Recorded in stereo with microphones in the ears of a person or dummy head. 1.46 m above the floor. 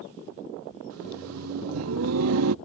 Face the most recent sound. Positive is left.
turn(degrees=-85)